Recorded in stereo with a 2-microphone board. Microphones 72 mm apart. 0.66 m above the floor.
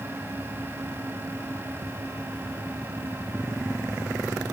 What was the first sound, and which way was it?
Only background noise.